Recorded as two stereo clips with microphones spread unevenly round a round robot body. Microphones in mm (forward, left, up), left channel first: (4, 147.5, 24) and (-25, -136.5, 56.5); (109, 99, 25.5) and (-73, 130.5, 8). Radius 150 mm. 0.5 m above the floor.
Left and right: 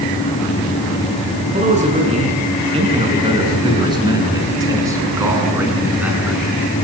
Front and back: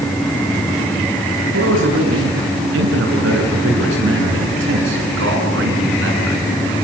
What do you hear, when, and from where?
1.5 s a man speaking: 160° right, 8 m; by 6.5 s straight behind, 7 m